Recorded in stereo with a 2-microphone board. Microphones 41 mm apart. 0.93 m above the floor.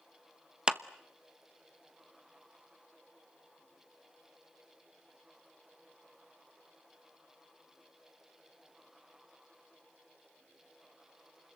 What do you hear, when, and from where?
0.7 s a clap: 20° right (ahead or behind), 0.9 m